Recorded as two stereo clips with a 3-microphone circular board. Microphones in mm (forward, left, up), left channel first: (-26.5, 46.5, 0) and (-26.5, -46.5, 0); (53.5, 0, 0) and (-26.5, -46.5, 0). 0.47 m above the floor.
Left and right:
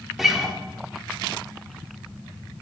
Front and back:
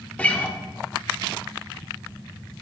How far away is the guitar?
About 0.7 m.